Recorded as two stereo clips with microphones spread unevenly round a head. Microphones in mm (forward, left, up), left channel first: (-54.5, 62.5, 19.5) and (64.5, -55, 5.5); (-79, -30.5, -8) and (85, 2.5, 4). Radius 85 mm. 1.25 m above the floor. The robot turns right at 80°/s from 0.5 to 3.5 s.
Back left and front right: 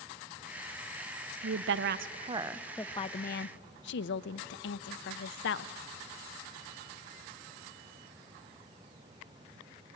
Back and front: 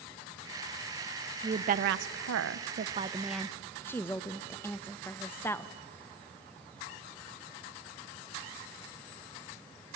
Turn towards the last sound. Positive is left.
turn(degrees=115)